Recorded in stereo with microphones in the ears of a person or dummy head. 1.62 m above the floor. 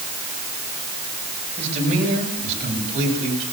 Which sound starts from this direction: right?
A man speaking, at 1.6 s.